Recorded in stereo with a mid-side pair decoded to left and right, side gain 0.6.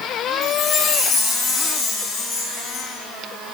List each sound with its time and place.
0.4 s a chime: 65° left, 2.0 m